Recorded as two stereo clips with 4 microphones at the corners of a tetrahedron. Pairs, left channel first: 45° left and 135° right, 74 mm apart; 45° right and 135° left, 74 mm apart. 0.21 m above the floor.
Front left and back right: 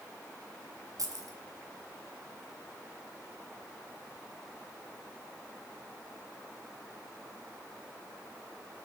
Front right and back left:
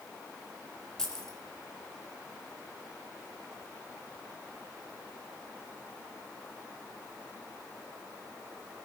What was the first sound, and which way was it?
Keys jangling, 125° right.